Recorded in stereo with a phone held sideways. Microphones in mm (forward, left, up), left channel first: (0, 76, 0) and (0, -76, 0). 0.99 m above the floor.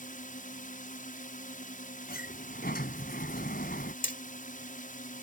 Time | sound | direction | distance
0.0 | a drone | 60° left (ahead or behind) | ?
2.1 | a sliding door | 90° left | ?
4.0 | hammering | 65° left (ahead or behind) | ?